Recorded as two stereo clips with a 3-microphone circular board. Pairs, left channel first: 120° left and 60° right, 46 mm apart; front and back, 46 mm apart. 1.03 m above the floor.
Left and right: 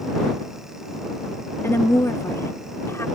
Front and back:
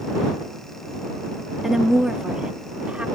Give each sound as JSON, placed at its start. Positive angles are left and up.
{"t": 1.6, "sound": "a woman speaking", "azimuth_deg": 95}